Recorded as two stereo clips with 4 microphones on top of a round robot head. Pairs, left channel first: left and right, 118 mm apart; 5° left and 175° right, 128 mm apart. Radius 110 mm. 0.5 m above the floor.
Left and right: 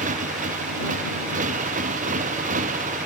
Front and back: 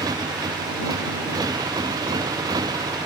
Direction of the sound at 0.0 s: 110° right.